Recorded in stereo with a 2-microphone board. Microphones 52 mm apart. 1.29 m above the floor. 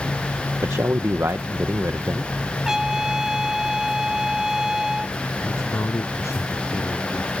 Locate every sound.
0.6 s a man speaking: 70° right (ahead or behind)
2.6 s a trumpet: 10° right (ahead or behind)
5.4 s a man speaking: 75° left (ahead or behind)